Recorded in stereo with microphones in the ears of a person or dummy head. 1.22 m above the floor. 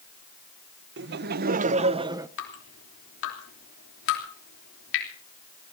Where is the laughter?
65° right (ahead or behind), 1.0 m; by 2.3 s 20° right (ahead or behind), 0.8 m.